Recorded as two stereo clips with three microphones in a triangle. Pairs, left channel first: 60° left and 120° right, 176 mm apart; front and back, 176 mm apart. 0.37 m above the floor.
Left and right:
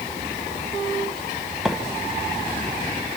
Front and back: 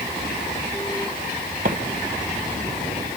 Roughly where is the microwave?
Behind left.